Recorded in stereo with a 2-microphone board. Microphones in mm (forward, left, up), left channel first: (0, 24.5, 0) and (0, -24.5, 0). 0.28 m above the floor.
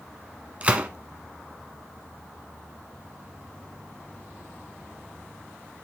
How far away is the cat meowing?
I don't hear a cat meowing.